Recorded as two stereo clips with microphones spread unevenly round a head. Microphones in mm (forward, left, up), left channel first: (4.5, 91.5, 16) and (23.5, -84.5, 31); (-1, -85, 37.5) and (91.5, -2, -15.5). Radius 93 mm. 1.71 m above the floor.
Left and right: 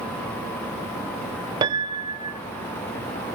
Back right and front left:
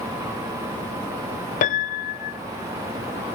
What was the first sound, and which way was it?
A piano, 150° right.